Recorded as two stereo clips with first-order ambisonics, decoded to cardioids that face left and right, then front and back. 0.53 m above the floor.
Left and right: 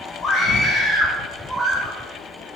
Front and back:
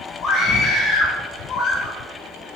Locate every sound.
0.2 s a scream: 55° left, 2.5 m; by 2.0 s 45° right, 1.1 m